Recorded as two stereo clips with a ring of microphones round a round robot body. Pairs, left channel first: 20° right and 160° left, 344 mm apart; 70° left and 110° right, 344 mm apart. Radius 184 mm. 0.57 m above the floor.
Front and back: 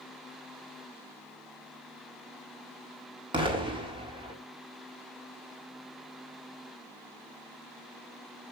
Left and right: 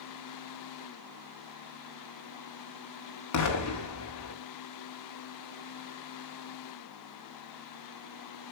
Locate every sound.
3.3 s an explosion: 85° left, 1.8 m